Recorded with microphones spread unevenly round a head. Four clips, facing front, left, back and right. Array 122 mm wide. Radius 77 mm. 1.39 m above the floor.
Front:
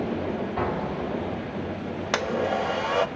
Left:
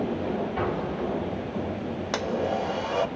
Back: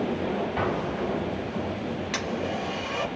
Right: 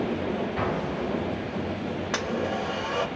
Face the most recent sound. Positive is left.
turn(degrees=10)